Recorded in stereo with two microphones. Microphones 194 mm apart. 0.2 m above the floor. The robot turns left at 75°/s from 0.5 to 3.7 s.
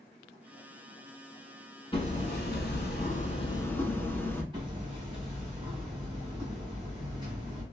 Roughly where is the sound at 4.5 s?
Right.